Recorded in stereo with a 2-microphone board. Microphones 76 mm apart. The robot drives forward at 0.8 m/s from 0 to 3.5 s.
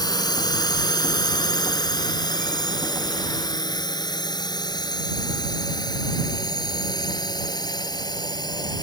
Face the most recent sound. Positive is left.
turn(degrees=70)  # may be behind; listen again after turning